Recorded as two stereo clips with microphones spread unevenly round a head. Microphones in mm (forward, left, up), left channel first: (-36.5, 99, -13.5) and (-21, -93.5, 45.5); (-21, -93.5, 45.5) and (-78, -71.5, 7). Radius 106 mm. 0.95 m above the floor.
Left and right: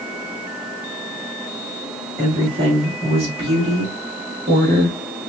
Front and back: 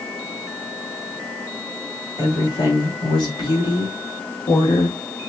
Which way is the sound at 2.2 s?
15° right.